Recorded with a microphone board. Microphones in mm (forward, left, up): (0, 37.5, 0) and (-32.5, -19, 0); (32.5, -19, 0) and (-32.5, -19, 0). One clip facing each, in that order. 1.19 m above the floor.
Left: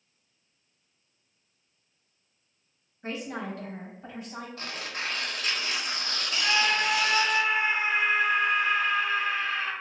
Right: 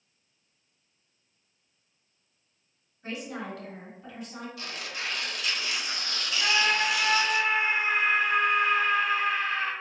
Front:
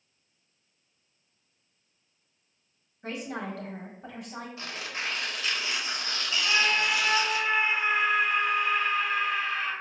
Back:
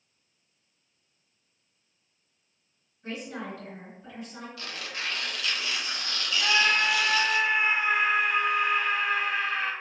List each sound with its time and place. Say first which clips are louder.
3.0 s a woman speaking: left 2 dB, front 2 dB; 5° left, 1.3 m
4.6 s tearing paper: left 2 dB, even; 50° left, 0.8 m
6.4 s a scream: even, back 2 dB; 165° right, 1.6 m